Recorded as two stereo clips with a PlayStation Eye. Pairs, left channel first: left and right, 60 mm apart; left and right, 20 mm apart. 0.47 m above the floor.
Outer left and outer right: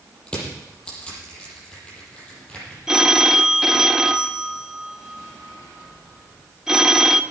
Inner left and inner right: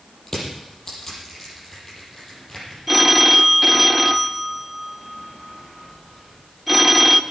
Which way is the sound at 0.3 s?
15° left (ahead or behind).